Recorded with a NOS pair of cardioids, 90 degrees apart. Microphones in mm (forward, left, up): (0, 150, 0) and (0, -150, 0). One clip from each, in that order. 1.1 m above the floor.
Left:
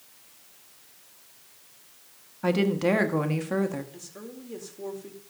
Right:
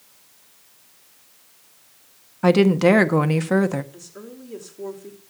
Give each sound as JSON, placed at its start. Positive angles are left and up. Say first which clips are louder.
{"t": 2.4, "sound": "a woman speaking", "louder": "right 8 dB", "azimuth_deg": -45, "distance_m": 1.4}
{"t": 3.9, "sound": "a woman speaking", "louder": "right 2 dB", "azimuth_deg": 0, "distance_m": 4.0}